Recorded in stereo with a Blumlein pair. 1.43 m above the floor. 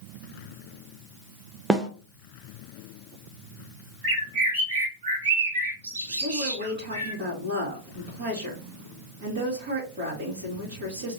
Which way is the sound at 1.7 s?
10° right.